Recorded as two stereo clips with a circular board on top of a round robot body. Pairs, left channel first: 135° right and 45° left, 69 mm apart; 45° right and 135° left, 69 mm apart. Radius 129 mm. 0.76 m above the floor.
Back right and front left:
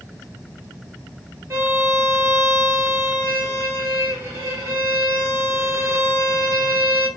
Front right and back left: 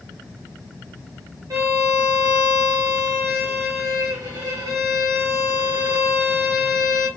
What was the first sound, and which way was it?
A violin, 100° left.